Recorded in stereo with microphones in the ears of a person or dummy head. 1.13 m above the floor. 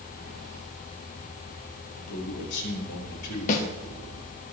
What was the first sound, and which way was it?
A man speaking, 80° left.